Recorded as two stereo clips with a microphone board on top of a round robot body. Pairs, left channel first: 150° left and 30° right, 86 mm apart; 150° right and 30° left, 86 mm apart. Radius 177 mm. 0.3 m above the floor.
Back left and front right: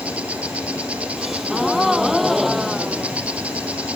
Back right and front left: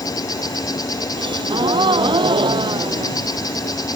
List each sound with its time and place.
0.0 s an insect: 105° right
1.2 s a gasp: 60° left